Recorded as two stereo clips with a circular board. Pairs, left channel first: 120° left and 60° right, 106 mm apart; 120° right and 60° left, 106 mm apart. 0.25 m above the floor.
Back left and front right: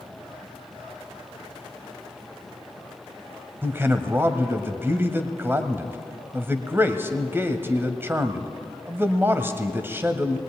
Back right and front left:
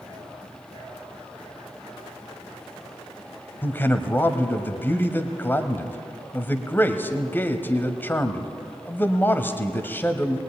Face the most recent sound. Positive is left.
turn(degrees=-85)